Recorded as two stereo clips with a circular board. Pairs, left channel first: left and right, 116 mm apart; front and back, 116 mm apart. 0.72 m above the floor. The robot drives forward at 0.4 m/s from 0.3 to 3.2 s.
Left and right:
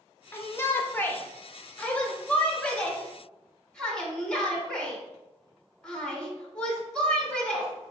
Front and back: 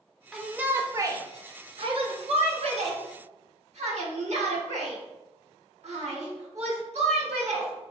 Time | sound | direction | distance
0.3 | a shout | 95° left | 0.5 m